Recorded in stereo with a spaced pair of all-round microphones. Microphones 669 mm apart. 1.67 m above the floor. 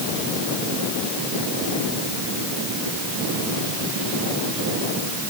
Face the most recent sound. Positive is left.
No sound to turn to.